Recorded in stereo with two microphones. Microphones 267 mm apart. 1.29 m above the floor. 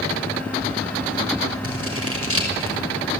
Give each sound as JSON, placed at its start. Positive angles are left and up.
{"t": 1.6, "sound": "scissors", "side_deg": -55, "distance_m": 5.5}